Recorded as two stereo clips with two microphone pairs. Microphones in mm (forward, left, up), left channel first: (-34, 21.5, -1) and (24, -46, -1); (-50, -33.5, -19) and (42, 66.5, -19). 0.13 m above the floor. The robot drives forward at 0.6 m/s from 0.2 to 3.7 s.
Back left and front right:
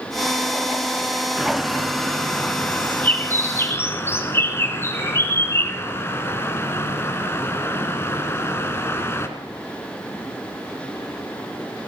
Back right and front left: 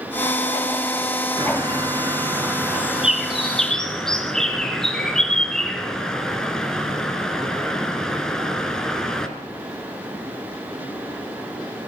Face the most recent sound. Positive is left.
turn(degrees=145)